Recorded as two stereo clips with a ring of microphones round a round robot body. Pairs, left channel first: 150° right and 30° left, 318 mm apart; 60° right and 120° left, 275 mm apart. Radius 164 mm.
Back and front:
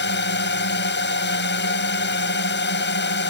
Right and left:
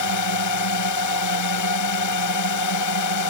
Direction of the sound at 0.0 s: 95° right.